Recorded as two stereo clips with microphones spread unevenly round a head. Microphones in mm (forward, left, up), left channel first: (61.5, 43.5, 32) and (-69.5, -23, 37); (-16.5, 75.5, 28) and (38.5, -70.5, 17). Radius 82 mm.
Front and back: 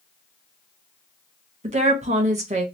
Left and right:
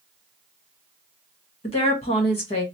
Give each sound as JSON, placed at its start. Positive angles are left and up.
{"t": 1.6, "sound": "a woman speaking", "azimuth_deg": 165, "distance_m": 1.4}